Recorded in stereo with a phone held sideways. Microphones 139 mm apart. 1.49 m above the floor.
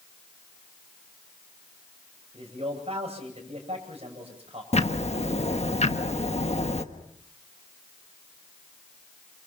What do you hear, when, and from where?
2.3 s a man speaking: 45° right (ahead or behind), 9 m
4.7 s ticking: 50° left (ahead or behind), 1.4 m